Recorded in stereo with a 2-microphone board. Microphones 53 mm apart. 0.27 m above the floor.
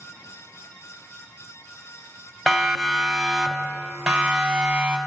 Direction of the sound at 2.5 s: Centre (ahead or behind).